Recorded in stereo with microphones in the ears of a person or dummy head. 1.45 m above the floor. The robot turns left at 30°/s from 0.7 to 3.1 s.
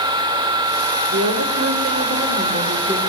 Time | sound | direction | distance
1.1 | a woman speaking | 120° right | 0.8 m